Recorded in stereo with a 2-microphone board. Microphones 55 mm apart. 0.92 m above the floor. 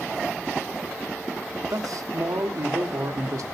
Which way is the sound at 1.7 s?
85° right.